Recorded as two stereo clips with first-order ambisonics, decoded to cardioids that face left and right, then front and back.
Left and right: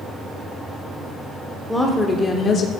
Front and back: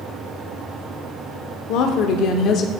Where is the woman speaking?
Straight ahead, 1.1 m; by 2.7 s 45° left, 0.9 m.